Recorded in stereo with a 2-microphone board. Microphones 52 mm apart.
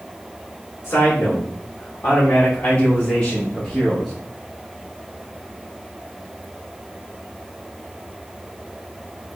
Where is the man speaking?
55° left (ahead or behind), 2 m; by 4.1 s centre (ahead or behind), 1.0 m.